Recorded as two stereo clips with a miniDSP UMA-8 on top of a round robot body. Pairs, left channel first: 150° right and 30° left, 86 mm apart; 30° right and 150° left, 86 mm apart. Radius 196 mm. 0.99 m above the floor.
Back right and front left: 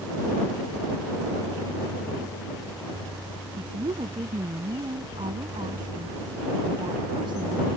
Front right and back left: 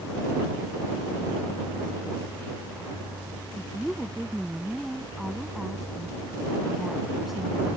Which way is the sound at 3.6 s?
60° left.